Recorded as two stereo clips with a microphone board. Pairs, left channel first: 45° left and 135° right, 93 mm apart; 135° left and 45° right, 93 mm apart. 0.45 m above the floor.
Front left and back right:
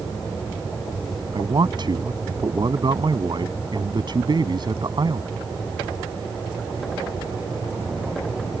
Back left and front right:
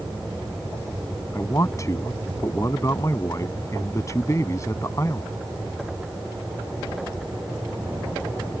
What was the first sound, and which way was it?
A man speaking, 170° right.